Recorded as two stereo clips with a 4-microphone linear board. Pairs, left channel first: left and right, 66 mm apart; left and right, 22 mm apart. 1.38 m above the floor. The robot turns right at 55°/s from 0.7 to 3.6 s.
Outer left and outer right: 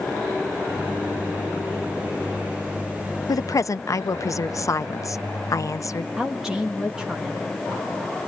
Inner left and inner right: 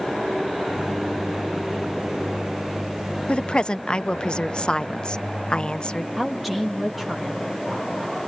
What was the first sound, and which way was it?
A woman speaking, 65° left (ahead or behind).